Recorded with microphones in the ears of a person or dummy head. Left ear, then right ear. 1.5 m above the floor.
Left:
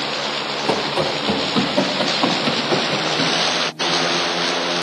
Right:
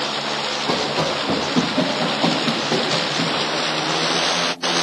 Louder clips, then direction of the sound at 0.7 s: Left 2 dB; 60° left (ahead or behind).